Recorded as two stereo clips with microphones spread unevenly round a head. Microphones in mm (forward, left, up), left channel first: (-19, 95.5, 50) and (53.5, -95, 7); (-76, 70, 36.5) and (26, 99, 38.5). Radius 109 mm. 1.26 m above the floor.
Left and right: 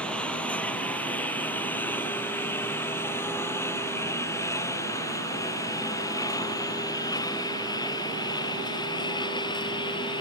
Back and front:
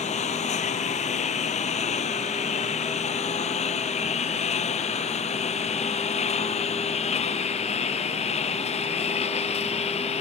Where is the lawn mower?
165° right; by 10.2 s straight behind.